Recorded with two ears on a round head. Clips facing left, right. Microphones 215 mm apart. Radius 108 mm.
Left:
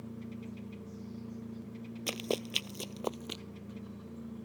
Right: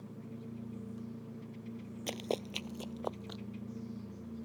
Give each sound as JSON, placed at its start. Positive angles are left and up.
{"t": 2.1, "sound": "running footsteps", "side_deg": 10}